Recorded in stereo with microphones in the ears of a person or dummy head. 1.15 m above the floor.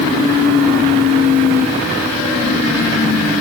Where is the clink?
No clink in this recording.